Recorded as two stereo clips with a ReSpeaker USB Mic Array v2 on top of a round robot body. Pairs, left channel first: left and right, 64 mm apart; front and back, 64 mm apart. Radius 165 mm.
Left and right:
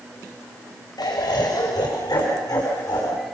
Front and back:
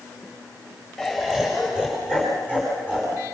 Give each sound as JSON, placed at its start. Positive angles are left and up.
{"t": 1.0, "sound": "laughter", "azimuth_deg": 90, "distance_m": 3.5}